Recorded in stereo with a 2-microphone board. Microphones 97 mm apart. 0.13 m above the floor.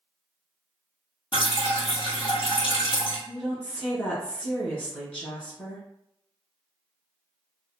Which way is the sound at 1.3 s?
65° left (ahead or behind).